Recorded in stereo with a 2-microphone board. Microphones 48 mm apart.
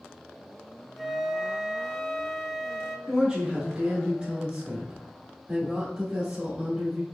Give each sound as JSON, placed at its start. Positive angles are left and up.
{"t": 1.0, "sound": "a flute", "side_deg": 0, "distance_m": 0.6}
{"t": 3.1, "sound": "a woman speaking", "side_deg": -30, "distance_m": 1.4}